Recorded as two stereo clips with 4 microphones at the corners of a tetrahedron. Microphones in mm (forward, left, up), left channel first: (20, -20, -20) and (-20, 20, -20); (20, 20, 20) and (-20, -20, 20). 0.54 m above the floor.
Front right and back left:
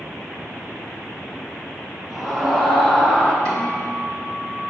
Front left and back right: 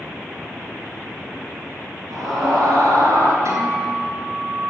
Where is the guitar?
115° right, 3 m.